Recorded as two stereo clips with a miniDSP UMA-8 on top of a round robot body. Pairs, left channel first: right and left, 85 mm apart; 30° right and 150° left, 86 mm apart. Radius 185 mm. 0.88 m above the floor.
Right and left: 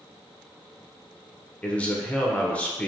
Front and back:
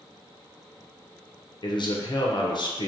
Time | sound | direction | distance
1.6 | a man speaking | 15° right | 0.7 m